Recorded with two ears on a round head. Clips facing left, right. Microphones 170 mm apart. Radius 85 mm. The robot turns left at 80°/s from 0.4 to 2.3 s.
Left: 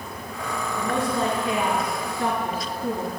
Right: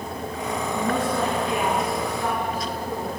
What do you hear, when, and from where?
0.8 s a woman speaking: 130° right, 3.5 m; by 3.2 s 105° left, 3.5 m